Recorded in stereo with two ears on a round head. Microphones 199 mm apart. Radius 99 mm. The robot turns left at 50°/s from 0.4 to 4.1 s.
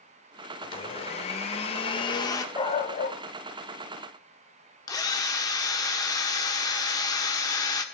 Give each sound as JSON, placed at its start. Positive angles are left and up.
{"t": 0.6, "sound": "a blender", "side_deg": 25, "distance_m": 1.0}
{"t": 2.5, "sound": "a dog barking", "azimuth_deg": 160, "distance_m": 1.3}
{"t": 4.9, "sound": "a drill", "side_deg": 15, "distance_m": 1.1}